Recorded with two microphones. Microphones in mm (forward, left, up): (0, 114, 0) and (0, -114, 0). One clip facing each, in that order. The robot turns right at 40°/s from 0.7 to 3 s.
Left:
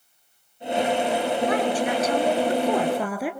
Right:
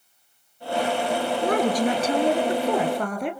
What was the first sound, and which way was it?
A woman speaking, 60° right.